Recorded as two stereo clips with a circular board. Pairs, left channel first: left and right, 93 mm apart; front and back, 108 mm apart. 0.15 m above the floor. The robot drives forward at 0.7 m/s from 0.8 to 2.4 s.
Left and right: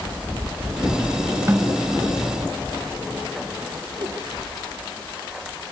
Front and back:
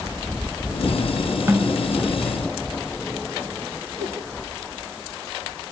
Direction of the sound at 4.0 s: 140° right.